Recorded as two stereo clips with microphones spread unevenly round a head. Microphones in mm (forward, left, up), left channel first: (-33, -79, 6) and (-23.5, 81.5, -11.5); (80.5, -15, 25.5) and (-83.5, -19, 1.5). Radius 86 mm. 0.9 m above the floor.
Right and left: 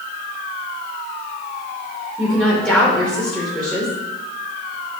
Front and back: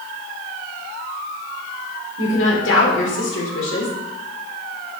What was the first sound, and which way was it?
A woman speaking, 5° right.